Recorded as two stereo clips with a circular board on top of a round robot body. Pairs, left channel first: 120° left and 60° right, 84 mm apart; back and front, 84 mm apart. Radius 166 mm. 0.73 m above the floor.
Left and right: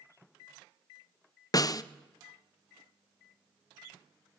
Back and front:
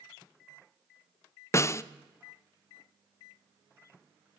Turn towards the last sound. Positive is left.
turn(degrees=140)